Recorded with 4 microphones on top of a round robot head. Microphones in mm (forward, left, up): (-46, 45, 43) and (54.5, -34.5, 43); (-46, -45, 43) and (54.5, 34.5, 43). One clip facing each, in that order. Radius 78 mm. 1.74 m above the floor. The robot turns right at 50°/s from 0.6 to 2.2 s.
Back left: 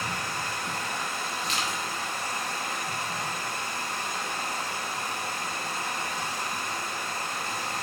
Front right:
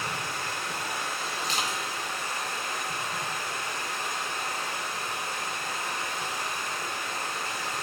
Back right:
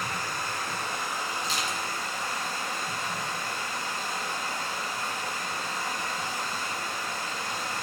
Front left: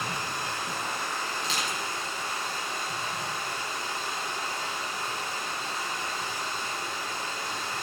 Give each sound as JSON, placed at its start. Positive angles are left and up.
{"t": 0.0, "sound": "running water", "azimuth_deg": 105, "distance_m": 5.5}
{"t": 1.4, "sound": "crushing", "azimuth_deg": 15, "distance_m": 2.5}